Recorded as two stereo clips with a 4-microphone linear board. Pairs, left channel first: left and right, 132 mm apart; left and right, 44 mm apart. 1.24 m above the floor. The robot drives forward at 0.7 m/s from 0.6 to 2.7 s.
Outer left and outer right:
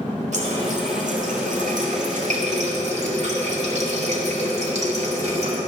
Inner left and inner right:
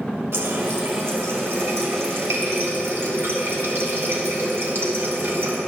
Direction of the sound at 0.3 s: 65° right (ahead or behind).